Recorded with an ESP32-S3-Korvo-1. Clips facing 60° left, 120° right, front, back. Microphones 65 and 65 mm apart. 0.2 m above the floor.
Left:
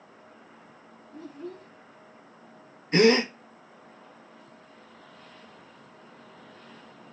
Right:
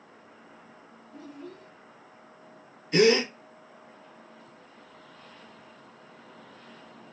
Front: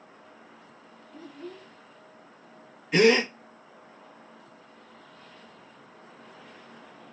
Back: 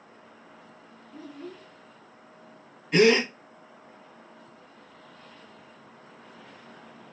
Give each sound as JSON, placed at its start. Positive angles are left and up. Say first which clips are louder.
{"t": 1.1, "sound": "a child speaking", "louder": "left 3 dB, back 1 dB", "azimuth_deg": 95, "distance_m": 1.6}
{"t": 2.9, "sound": "a gasp", "louder": "left 1 dB, even", "azimuth_deg": 90, "distance_m": 0.9}